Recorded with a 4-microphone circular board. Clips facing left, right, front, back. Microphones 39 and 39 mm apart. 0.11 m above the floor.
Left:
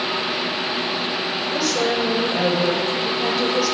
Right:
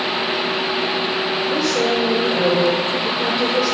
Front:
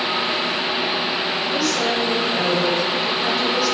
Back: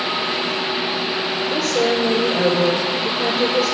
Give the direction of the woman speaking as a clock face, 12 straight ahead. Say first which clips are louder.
Right 1 dB, back 4 dB; 5 o'clock.